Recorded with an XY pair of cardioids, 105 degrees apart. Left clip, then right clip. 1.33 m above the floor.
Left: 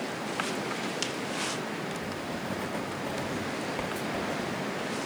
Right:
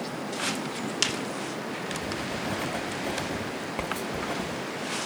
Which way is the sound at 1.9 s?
25° right.